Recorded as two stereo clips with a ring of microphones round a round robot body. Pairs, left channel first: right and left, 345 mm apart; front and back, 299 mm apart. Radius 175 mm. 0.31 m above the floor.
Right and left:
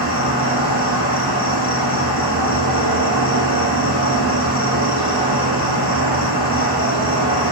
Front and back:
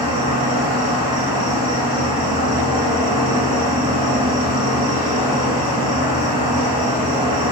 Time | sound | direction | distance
0.0 | an insect | 130° right | 3.5 m